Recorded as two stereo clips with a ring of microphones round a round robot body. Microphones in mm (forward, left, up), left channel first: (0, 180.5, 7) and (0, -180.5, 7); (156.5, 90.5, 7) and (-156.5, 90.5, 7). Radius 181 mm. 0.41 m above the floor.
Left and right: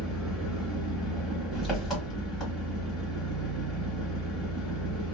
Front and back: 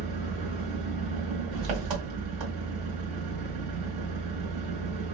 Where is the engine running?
Straight behind, 1.4 m.